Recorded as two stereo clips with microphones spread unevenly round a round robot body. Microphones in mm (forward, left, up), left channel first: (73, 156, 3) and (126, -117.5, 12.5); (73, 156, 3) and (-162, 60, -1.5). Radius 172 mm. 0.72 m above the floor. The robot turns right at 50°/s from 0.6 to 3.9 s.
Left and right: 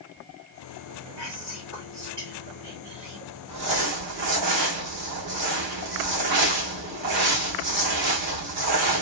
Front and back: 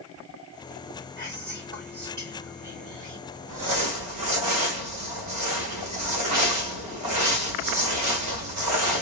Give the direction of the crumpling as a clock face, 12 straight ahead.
4 o'clock.